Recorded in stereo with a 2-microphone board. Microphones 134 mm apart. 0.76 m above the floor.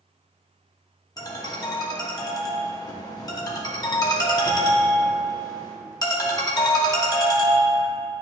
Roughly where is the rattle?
I don't hear a rattle.